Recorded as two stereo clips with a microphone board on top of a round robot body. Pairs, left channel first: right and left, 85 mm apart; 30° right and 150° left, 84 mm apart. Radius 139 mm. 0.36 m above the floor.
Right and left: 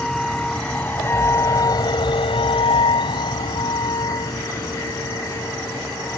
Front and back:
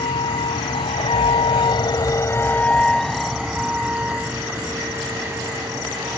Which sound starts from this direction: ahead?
A vehicle, at 0.0 s.